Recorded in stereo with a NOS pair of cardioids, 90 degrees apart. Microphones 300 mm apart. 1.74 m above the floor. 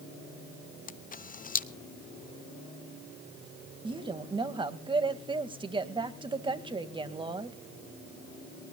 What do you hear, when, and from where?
0.9 s a camera shutter: 30° left, 0.8 m
3.8 s a woman speaking: 15° right, 2 m